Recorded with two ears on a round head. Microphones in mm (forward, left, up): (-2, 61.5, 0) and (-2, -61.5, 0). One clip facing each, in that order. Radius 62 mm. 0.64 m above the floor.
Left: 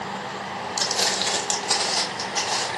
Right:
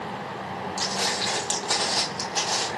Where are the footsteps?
55° left (ahead or behind), 1.3 m; by 2.7 s 15° right (ahead or behind), 1.8 m.